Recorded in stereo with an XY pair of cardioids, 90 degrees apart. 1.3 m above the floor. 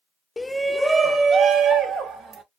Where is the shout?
20° left, 0.5 m; by 2.4 s 75° right, 1.3 m.